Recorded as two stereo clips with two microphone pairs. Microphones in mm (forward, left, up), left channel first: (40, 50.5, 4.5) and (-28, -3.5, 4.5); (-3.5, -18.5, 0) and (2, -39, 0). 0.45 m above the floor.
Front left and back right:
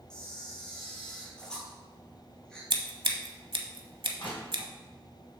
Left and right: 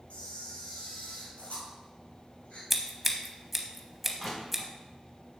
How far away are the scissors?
About 0.9 m.